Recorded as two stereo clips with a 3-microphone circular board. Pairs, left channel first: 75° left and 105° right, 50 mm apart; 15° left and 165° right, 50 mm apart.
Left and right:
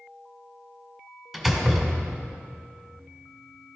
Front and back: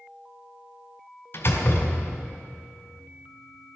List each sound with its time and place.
1.3 s a door slam: 25° right, 1.9 m